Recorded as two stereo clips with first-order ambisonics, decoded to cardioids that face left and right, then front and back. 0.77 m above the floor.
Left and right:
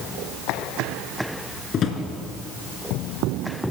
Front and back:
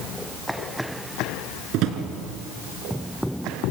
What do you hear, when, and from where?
1.7 s a drawer: 150° left, 2 m